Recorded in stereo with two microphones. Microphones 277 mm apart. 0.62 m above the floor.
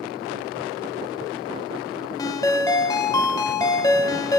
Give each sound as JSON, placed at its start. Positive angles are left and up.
{"t": 2.2, "sound": "a ringtone", "side_deg": 10, "distance_m": 0.9}